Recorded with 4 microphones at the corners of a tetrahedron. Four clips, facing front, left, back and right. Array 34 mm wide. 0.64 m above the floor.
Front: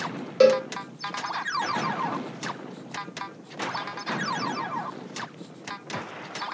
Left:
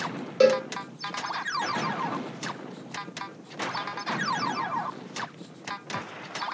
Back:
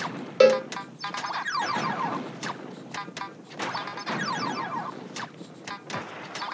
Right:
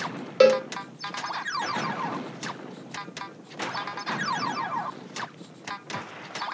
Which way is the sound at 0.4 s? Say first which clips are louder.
Right 2 dB, even; 120° right.